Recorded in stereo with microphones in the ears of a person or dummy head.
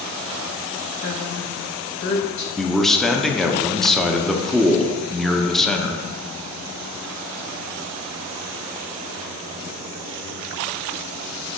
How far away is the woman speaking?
About 1.1 m.